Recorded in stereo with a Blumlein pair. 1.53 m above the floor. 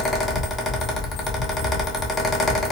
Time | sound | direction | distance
0.0 | a fan | 20° left | 0.9 m